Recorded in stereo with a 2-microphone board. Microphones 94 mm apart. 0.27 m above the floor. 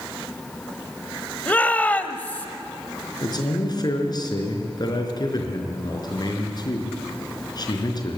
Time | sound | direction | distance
1.5 | a shout | 15° left (ahead or behind) | 1.2 m
3.2 | a man speaking | 45° left (ahead or behind) | 4.5 m